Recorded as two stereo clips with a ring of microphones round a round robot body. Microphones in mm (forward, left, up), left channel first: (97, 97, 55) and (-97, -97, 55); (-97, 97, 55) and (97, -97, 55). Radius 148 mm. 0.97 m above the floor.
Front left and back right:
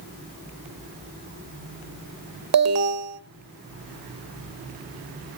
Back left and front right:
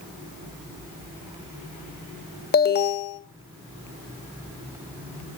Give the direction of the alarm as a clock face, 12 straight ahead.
6 o'clock.